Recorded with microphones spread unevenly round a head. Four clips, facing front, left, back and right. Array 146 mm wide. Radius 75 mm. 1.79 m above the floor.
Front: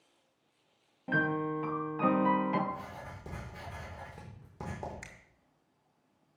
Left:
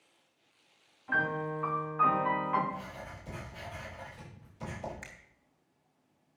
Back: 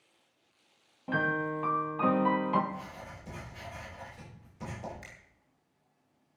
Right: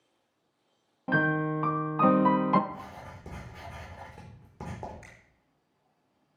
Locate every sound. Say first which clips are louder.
1.1 s a piano: right 5 dB, even; 85° right, 1.1 m
2.7 s writing: even, front 1 dB; 50° right, 4.5 m
5.0 s a finger snap: left 3 dB, even; 60° left, 2.5 m